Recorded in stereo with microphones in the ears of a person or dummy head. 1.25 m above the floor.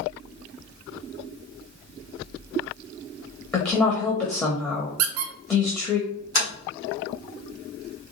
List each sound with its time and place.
3.5 s a woman speaking: 10° left (ahead or behind), 0.8 m
5.0 s a squeak: 75° right (ahead or behind), 0.7 m
6.3 s tapping: 65° left (ahead or behind), 1.9 m